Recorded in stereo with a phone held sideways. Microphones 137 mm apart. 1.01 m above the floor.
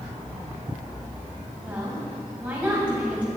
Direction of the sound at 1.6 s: 10° right (ahead or behind).